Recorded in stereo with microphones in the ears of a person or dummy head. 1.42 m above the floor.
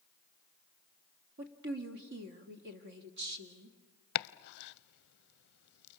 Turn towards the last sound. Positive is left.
turn(degrees=60)  # may be behind; listen again after turning